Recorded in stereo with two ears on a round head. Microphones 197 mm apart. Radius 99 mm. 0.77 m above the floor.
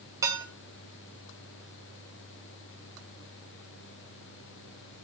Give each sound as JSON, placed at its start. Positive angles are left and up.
{"t": 0.2, "sound": "dishes clattering", "side_deg": -15, "distance_m": 3.0}